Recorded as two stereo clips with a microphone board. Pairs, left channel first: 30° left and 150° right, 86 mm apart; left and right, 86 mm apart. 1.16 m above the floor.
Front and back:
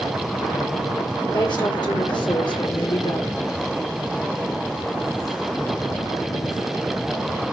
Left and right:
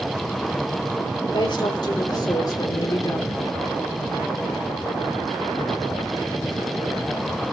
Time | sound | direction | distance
1.3 | a woman speaking | 55° left | 3.5 m